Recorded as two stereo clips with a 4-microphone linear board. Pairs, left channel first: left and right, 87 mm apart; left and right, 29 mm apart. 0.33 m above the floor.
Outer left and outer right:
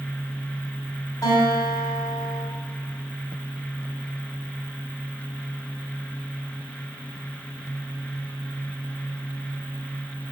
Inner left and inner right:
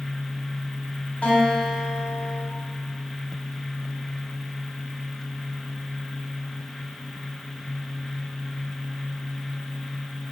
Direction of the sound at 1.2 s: 40° left (ahead or behind).